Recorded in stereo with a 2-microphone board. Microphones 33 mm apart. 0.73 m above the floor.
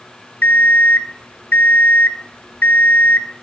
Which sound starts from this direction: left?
An alarm clock, at 0.4 s.